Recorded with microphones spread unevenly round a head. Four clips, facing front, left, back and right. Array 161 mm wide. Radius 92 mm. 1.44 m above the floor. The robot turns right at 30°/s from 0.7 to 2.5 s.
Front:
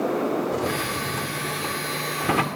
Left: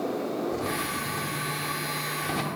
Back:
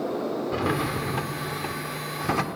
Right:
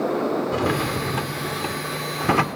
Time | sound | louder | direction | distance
0.5 | a drawer | right 7 dB, even | 120° right | 1.7 m